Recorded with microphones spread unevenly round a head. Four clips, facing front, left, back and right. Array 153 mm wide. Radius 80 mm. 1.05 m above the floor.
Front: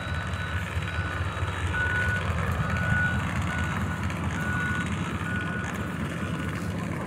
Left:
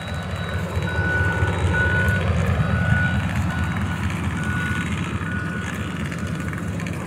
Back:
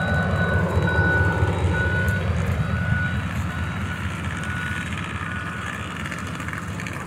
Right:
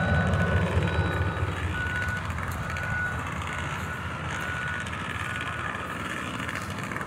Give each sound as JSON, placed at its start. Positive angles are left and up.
{"t": 0.0, "sound": "a vehicle", "azimuth_deg": -160}